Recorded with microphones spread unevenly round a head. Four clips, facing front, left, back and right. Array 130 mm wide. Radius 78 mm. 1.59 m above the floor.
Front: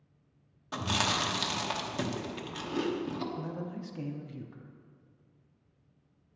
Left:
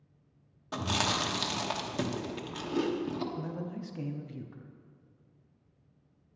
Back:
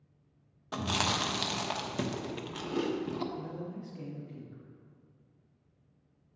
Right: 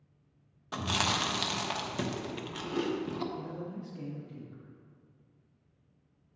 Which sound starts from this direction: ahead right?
Chewing, at 0.7 s.